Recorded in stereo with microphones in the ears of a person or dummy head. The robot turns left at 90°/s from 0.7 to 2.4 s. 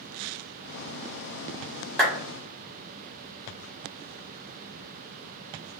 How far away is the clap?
About 1.3 m.